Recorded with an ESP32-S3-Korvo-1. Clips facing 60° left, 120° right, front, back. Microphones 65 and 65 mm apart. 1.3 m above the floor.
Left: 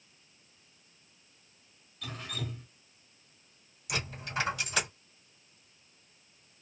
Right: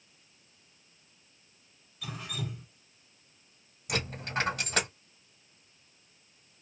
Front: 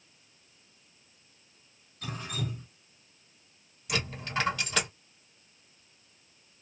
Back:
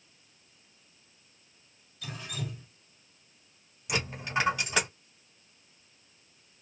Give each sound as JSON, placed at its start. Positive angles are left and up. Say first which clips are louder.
{"t": 2.0, "sound": "dripping", "louder": "right 1 dB, front 3 dB", "azimuth_deg": -40, "distance_m": 1.7}
{"t": 3.9, "sound": "a dropped coin", "louder": "right 3 dB, back 2 dB", "azimuth_deg": -110, "distance_m": 1.8}